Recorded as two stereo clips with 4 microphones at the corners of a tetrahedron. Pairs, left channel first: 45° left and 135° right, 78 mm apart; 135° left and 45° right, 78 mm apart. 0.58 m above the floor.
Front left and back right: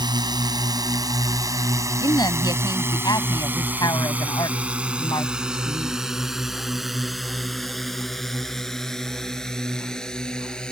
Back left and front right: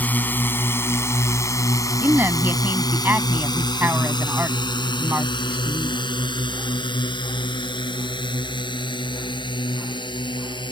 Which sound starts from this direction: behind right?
A drone, at 0.0 s.